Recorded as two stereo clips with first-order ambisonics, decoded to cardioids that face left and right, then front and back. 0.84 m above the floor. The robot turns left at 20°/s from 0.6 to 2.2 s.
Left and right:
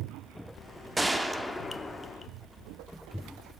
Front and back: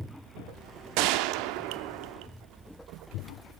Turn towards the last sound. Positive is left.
turn(degrees=160)